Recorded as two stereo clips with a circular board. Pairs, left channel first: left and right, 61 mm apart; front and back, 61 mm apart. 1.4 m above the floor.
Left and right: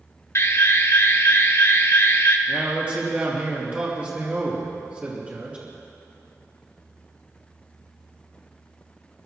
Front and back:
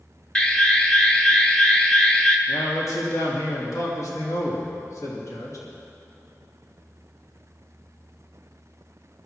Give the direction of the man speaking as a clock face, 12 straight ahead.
1 o'clock.